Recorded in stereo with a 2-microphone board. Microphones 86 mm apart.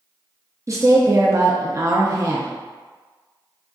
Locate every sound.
0.7 s a woman speaking: 35° right (ahead or behind), 0.5 m